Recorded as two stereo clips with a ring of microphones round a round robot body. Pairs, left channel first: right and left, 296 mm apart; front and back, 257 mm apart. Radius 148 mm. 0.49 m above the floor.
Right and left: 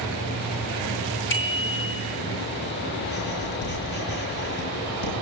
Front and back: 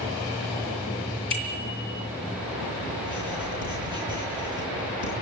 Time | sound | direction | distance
1.3 | a bicycle bell | 35° right | 7.5 m
3.0 | writing | 35° right | 9 m